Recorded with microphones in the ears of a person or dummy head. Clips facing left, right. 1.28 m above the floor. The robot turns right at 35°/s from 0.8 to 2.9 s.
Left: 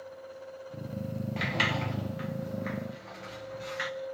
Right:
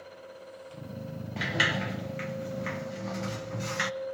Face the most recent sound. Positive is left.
turn(degrees=-125)